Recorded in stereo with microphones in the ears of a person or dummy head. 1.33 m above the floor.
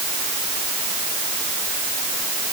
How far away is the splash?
I don't hear a splash.